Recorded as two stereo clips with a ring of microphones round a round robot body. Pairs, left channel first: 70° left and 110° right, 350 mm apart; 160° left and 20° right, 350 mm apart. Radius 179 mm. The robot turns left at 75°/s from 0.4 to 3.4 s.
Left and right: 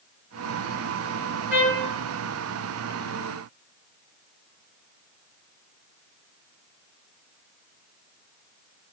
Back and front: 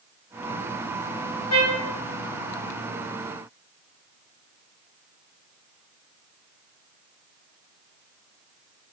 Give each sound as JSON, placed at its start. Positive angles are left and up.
{"t": 1.5, "sound": "a trumpet", "azimuth_deg": -170, "distance_m": 1.6}